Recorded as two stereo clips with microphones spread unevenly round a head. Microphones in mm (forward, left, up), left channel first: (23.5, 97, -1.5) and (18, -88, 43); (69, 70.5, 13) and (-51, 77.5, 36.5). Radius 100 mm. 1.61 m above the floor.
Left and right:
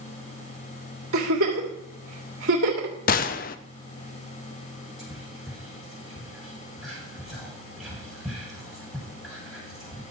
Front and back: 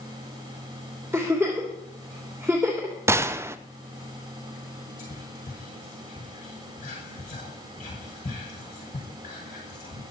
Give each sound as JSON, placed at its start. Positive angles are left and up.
{"t": 1.1, "sound": "a giggle", "azimuth_deg": -105, "distance_m": 3.0}
{"t": 3.1, "sound": "a gunshot", "azimuth_deg": 135, "distance_m": 0.5}
{"t": 5.0, "sound": "whispering", "azimuth_deg": -5, "distance_m": 6.5}